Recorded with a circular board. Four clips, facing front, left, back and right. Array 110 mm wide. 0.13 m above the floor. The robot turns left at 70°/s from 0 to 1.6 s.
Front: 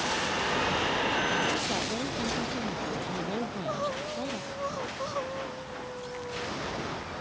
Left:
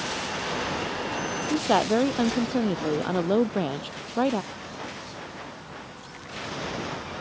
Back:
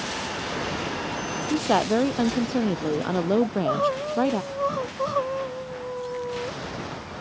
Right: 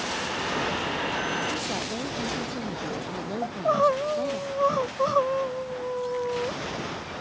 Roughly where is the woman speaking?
Behind left.